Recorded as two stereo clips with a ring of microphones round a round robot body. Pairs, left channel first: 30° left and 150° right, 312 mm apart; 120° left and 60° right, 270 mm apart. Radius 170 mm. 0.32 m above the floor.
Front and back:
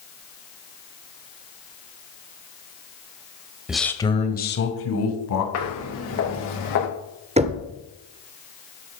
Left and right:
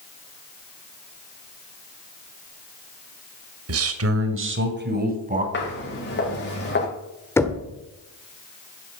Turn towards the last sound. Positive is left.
turn(degrees=-175)